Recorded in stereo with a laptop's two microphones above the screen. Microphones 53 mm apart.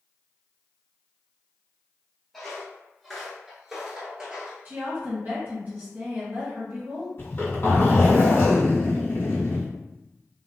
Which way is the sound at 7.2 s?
45° left (ahead or behind).